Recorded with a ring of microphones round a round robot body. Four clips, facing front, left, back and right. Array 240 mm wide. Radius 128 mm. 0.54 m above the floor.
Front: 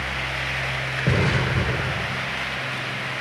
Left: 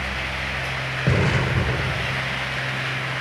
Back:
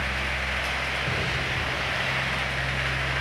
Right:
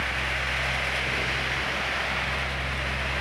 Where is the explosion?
50° left.